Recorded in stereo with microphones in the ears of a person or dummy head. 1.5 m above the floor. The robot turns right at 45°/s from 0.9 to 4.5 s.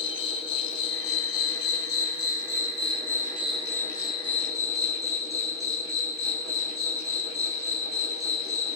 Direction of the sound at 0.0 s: 40° left.